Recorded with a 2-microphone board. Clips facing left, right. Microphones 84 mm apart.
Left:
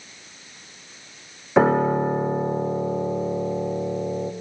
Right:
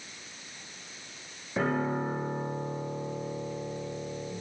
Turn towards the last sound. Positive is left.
turn(degrees=80)